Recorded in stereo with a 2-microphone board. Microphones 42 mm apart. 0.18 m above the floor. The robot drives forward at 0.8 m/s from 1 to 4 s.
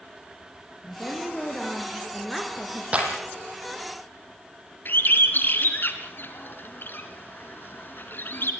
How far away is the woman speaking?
About 5 m.